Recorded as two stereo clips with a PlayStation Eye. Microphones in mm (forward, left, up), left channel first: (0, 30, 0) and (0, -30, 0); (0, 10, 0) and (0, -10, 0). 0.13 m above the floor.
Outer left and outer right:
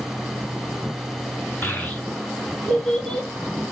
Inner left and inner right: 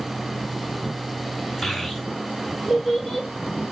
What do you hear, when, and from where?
1.6 s a child speaking: 30° left (ahead or behind), 1.0 m; by 3.3 s 5° left (ahead or behind), 2.5 m